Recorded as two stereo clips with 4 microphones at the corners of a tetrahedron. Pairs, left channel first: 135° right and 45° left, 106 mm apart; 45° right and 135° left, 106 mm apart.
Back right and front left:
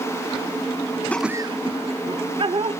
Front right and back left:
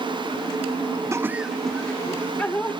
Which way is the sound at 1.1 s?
160° left.